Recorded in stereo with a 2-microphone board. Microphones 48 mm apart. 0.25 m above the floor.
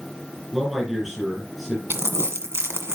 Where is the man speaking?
5° right (ahead or behind), 7 m.